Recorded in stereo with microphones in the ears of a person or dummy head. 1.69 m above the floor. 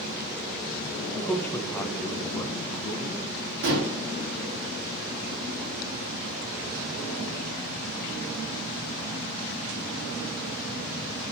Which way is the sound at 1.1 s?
10° left (ahead or behind).